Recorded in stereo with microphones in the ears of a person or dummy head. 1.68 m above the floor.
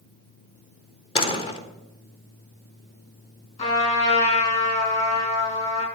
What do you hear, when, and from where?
1.1 s a door slam: 35° left (ahead or behind), 1.2 m
3.6 s a trumpet: 45° left (ahead or behind), 7 m